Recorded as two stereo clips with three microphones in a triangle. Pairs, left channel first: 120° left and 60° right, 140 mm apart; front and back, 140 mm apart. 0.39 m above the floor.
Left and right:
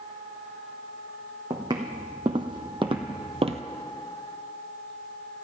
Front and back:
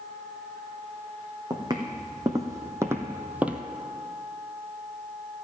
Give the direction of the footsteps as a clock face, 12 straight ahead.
4 o'clock.